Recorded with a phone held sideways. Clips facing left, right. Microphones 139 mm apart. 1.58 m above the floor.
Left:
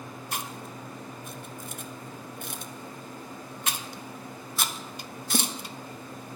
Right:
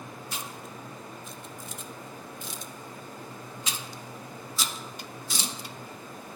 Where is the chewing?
55° left (ahead or behind), 0.5 m.